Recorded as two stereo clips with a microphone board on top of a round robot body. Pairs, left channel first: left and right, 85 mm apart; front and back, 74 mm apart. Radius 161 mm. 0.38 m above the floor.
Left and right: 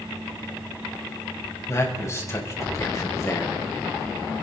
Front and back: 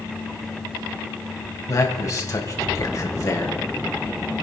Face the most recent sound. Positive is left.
turn(degrees=35)